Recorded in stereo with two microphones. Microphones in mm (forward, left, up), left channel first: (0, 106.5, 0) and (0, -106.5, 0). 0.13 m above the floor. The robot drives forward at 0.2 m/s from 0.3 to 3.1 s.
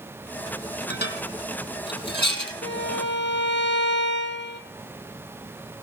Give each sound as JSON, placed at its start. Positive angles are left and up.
{"t": 0.9, "sound": "dishes clattering", "side_deg": 55, "distance_m": 3.0}
{"t": 2.6, "sound": "a violin", "side_deg": 60, "distance_m": 1.3}